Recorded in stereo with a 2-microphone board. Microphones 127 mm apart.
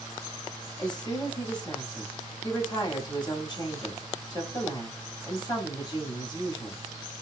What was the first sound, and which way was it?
A woman speaking, 30° left (ahead or behind).